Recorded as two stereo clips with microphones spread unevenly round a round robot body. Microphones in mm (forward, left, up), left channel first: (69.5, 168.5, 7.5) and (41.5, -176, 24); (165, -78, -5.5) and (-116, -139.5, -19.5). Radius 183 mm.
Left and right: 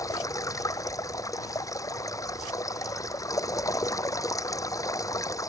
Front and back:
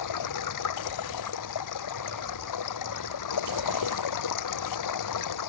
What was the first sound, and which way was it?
Running water, 5° left.